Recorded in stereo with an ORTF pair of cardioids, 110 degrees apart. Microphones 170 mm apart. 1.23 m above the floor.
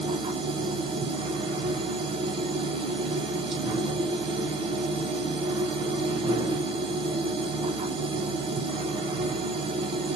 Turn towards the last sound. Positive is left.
turn(degrees=-30)